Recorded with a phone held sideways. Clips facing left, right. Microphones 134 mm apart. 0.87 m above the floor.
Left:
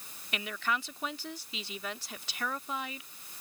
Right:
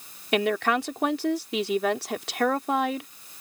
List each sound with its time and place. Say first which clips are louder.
0.3 s a woman speaking: right 12 dB; 70° right (ahead or behind)